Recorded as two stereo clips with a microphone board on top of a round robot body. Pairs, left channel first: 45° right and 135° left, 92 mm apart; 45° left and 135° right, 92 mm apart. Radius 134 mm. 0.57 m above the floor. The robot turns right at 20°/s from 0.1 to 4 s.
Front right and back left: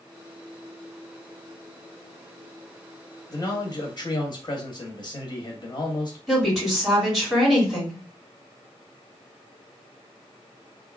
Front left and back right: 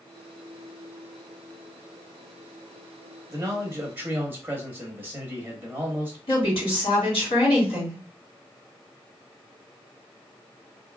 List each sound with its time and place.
3.3 s a man speaking: 80° right, 0.9 m; by 6.2 s 65° right, 0.9 m
6.3 s a woman speaking: 50° left, 2.0 m